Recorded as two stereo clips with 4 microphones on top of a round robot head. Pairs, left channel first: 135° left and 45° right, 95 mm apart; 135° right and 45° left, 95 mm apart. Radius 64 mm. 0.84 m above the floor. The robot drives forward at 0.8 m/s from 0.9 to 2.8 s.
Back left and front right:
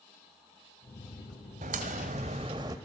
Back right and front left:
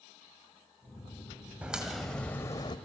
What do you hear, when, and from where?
1.6 s a crack: 35° right, 1.1 m; by 2.8 s 100° right, 0.8 m